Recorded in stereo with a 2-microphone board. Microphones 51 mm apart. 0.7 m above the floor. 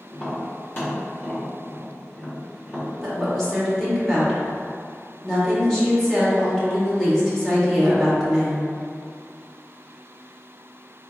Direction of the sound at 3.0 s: 10° left (ahead or behind).